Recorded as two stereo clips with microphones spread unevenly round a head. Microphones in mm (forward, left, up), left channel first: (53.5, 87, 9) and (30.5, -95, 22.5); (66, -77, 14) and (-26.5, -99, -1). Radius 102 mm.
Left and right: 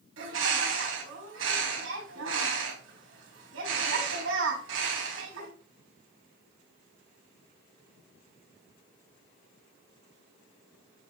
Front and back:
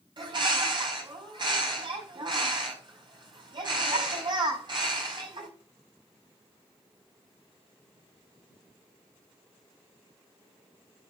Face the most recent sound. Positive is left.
turn(degrees=-125)